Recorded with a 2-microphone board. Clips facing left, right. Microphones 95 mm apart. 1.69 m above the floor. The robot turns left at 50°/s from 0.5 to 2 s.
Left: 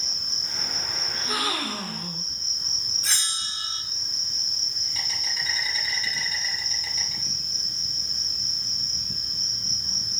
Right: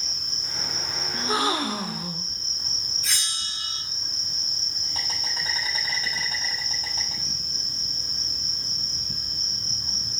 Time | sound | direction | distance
0.0 | an insect | 25° left | 6.5 m
1.1 | a gasp | 120° right | 0.7 m
3.0 | a bell | 40° left (ahead or behind) | 4 m